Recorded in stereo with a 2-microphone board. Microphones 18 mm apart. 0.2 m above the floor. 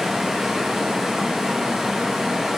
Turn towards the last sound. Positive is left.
turn(degrees=-30)  # may be behind; listen again after turning